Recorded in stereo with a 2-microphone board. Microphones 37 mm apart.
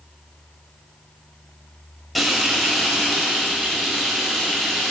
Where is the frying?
Centre (ahead or behind), 2 m.